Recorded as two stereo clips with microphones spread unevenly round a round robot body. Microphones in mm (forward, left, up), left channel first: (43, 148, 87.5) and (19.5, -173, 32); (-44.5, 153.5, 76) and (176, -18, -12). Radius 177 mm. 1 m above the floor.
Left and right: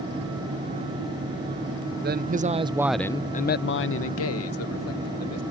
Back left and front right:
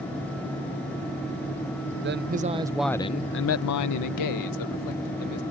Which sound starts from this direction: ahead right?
A man speaking, at 2.0 s.